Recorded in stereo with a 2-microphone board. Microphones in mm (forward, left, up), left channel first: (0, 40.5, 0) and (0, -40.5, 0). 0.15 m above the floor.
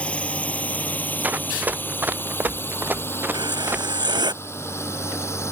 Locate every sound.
0.0 s a drone: 15° left (ahead or behind); by 5.5 s 35° left (ahead or behind)
1.2 s running footsteps: 20° right (ahead or behind); by 4.2 s 25° right (ahead or behind)
3.3 s writing: 65° right (ahead or behind)